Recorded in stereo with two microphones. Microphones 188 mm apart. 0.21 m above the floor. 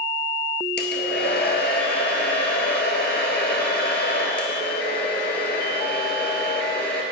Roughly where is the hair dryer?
Left.